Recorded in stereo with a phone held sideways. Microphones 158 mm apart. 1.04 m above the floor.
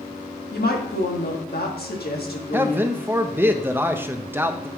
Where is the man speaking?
15° right (ahead or behind), 0.6 m.